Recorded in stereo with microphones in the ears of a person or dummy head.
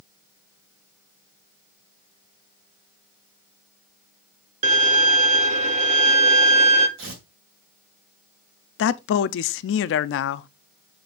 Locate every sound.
4.6 s a violin: 40° right (ahead or behind), 0.9 m
7.0 s tearing paper: 65° right (ahead or behind), 3 m
8.8 s a man speaking: 75° left (ahead or behind), 0.5 m